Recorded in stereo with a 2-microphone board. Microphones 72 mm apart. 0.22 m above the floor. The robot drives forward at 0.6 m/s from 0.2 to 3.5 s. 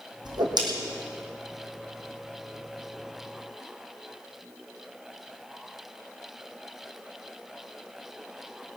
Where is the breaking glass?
No breaking glass in this recording.